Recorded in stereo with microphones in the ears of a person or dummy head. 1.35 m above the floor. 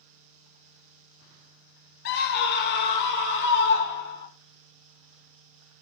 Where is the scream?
55° left (ahead or behind), 0.7 m; by 4.3 s 65° left (ahead or behind), 1.9 m.